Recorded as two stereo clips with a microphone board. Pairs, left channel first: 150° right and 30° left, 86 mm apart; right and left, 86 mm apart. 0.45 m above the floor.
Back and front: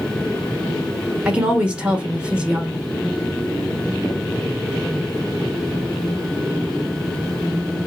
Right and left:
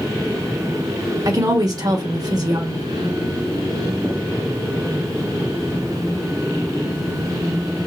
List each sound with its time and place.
1.2 s a woman speaking: 105° left, 1.4 m